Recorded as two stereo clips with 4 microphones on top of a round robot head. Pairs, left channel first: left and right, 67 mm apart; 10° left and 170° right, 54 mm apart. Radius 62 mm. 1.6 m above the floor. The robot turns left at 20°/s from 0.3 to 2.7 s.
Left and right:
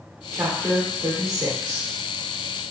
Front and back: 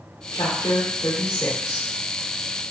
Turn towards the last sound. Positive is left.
turn(degrees=-75)